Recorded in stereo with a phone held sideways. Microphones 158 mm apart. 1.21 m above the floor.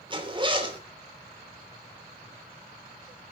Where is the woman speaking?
No woman speaking in this recording.